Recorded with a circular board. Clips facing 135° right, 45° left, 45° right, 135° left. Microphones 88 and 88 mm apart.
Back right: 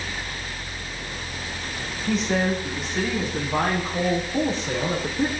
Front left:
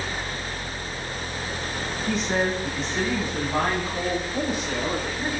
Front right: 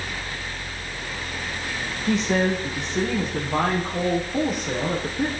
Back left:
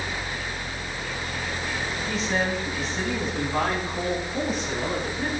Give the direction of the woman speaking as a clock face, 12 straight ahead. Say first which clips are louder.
Back right 2 dB, front right 6 dB; 2 o'clock.